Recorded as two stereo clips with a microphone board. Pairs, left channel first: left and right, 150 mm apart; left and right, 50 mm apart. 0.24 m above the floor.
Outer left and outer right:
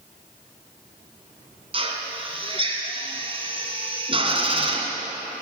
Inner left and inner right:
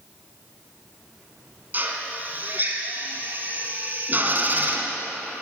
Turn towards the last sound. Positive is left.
turn(degrees=-35)  # may be behind; listen again after turning